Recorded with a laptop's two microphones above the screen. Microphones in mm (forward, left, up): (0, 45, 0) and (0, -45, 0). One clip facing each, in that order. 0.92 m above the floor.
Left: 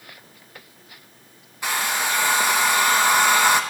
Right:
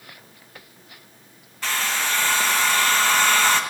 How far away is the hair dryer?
About 0.8 m.